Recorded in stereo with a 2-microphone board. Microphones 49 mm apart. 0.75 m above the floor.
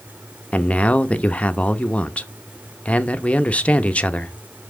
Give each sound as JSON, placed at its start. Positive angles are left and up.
{"t": 0.5, "sound": "a man speaking", "side_deg": 25, "distance_m": 0.7}